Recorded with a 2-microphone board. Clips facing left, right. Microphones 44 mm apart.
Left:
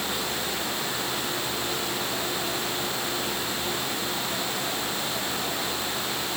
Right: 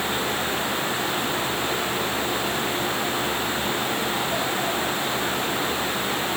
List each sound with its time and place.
Only background noise.